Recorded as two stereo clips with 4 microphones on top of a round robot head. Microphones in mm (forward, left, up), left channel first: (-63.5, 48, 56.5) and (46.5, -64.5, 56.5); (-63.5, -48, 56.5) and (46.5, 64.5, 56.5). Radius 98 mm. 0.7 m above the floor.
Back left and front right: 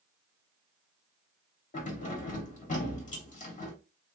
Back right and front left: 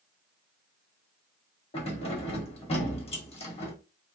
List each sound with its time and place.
1.7 s keys jangling: 175° left, 1.3 m